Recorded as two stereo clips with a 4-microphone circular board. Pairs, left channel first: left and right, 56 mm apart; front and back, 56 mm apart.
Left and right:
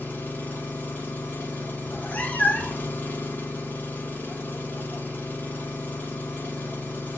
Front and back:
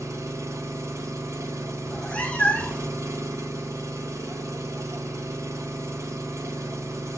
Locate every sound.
0.0 s an engine running: 150° left, 1.0 m
1.8 s a cat meowing: 50° left, 0.7 m